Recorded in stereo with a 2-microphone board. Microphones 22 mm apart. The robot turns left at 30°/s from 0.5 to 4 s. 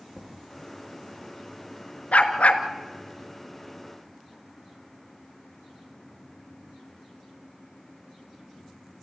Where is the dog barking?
85° left, 1.5 m; by 2.6 s 80° left, 1.5 m.